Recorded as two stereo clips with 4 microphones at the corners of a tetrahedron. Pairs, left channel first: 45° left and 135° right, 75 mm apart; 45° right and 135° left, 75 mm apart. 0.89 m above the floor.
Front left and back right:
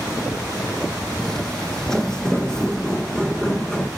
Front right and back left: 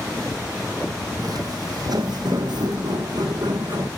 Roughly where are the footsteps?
Behind left.